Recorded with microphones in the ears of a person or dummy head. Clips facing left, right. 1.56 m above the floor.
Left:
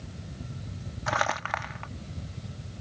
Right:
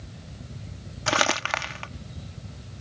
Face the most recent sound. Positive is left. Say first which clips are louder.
# right 4 dB
turn(degrees=-40)  # may be behind; listen again after turning